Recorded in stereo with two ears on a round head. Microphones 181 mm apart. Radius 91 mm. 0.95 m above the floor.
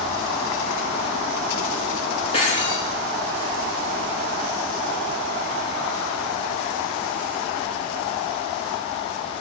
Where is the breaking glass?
30° left (ahead or behind), 8 m.